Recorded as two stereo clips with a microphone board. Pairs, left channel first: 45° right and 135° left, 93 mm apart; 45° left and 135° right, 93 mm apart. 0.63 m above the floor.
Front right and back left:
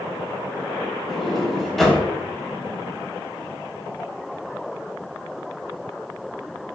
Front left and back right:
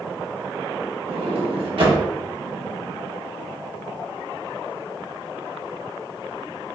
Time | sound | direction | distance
1.1 | a sliding door | 130° right | 0.6 m